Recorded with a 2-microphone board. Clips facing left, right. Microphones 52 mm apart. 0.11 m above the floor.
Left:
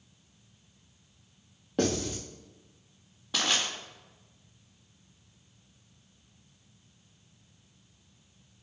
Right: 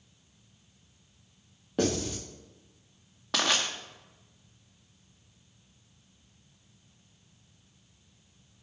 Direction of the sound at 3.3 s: 70° right (ahead or behind).